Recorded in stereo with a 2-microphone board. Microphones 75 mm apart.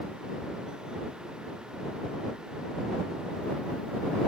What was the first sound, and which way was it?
Only background noise.